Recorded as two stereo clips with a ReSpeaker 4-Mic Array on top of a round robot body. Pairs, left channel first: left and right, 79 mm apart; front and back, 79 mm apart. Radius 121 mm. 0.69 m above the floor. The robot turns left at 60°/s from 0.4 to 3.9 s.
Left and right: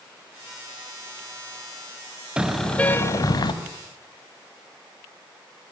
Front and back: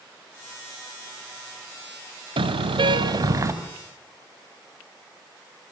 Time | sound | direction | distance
2.4 | a car horn | 170° right | 2.5 m